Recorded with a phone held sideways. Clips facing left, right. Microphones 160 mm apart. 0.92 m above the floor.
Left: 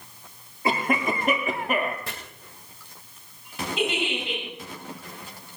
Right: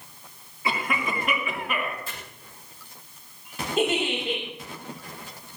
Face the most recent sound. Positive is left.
turn(degrees=-45)  # may be behind; listen again after turning